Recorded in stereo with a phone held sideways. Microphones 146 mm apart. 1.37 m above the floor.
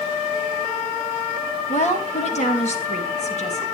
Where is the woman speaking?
50° left (ahead or behind), 2 m.